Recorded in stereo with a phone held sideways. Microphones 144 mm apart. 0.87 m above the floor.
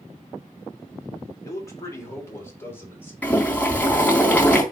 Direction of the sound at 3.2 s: 10° left (ahead or behind).